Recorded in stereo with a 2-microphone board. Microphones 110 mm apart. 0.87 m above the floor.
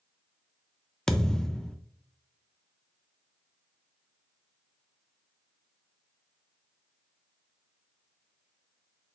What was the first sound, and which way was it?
A thud, 5° left (ahead or behind).